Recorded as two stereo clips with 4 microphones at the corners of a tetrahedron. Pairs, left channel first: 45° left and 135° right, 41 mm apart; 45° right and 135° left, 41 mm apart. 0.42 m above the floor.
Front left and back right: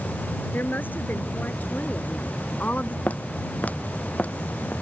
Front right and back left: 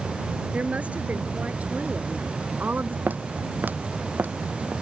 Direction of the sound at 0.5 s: 80° left.